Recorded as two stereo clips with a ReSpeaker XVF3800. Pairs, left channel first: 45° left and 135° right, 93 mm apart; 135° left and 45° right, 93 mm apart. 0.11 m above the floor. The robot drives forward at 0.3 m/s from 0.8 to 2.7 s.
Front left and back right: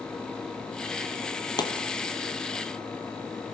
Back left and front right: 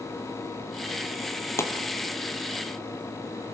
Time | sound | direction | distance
1.6 | a pop | 80° left | 2.5 m